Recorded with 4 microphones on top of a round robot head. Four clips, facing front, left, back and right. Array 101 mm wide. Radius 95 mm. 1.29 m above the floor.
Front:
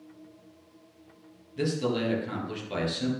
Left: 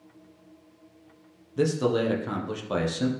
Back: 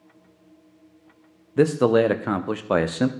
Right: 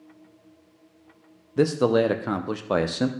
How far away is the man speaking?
About 0.6 m.